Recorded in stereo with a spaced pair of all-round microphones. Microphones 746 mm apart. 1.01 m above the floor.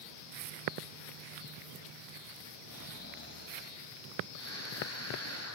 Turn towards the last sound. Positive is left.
turn(degrees=20)  # may be behind; listen again after turning